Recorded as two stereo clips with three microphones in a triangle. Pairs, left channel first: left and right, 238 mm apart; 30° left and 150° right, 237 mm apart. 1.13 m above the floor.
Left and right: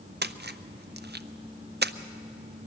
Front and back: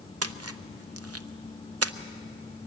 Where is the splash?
140° right, 0.6 m.